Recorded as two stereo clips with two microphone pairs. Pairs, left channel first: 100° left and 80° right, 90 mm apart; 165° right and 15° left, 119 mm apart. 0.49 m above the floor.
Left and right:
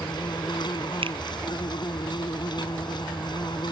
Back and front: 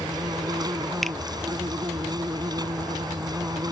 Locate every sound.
0.0 s an insect: 70° left
1.0 s a finger snap: 75° right